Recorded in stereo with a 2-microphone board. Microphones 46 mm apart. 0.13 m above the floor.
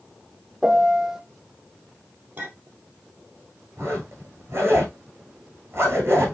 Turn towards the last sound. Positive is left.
turn(degrees=-55)  # may be behind; listen again after turning